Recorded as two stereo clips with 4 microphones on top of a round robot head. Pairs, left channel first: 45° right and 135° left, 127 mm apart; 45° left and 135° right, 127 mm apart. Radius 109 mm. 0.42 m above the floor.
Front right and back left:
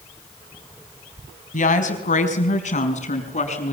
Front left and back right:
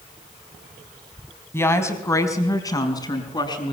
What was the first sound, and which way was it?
A woman speaking, 30° right.